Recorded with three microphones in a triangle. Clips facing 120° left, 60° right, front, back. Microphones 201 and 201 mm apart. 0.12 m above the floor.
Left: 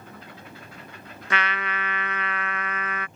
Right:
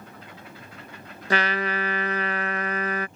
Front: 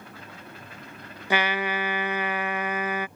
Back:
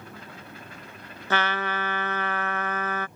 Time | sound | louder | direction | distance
1.3 | a trumpet | right 5 dB, front 2 dB | 65° right | ?